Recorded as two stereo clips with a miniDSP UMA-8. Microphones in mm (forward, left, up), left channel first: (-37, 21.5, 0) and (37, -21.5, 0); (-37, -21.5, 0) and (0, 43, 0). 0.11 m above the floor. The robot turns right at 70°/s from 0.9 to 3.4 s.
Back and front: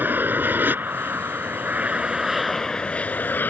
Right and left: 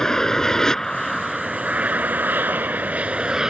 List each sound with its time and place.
0.0 s an aircraft: 50° right; by 3.5 s 125° left